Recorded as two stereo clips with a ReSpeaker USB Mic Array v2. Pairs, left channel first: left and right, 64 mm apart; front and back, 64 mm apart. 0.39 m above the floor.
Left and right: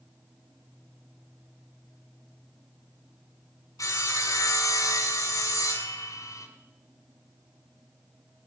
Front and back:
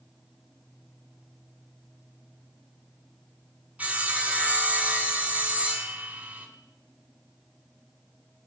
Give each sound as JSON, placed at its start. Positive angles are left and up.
{"t": 3.8, "sound": "sawing", "azimuth_deg": 115, "distance_m": 2.5}